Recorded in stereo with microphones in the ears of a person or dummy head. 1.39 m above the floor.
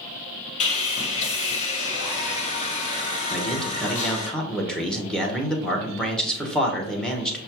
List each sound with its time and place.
0.6 s sawing: 35° left (ahead or behind), 1.1 m
3.3 s a man speaking: centre (ahead or behind), 1.0 m